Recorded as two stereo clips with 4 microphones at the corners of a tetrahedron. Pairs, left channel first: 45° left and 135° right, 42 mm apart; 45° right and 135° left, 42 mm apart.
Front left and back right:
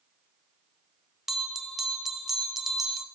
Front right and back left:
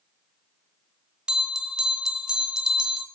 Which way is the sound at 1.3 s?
155° left.